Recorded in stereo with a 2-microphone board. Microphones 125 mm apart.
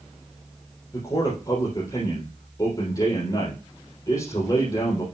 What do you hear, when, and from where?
0.9 s a man speaking: 30° left (ahead or behind), 3.5 m